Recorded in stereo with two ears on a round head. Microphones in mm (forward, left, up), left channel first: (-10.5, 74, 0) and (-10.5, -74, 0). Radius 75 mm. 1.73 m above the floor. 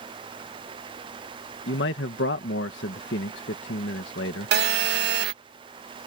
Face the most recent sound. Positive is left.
turn(degrees=-75)  # may be behind; listen again after turning